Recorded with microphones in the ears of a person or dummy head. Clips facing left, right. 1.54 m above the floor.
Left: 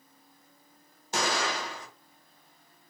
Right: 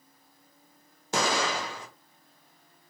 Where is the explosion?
70° right (ahead or behind), 1.0 m.